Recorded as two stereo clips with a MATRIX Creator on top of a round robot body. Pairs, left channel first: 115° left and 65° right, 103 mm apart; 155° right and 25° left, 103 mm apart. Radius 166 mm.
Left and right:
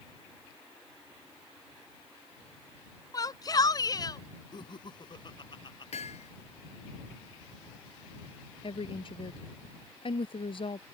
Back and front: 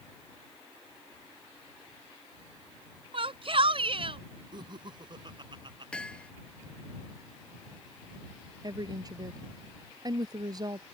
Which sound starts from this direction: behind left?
Hammering, at 5.9 s.